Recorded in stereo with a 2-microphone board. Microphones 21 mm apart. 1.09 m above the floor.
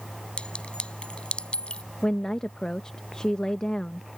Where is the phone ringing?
I don't hear a phone ringing.